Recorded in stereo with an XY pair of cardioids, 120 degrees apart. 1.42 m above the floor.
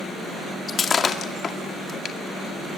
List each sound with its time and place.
0.7 s breaking glass: 35° left, 2 m